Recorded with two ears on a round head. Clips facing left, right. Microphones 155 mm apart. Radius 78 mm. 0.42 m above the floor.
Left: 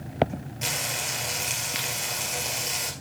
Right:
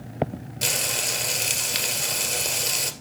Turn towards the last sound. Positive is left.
turn(degrees=-45)  # may be behind; listen again after turning